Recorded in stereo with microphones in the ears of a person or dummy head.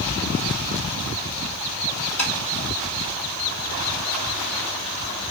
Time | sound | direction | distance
2.2 | tapping | 5° left (ahead or behind) | 1.9 m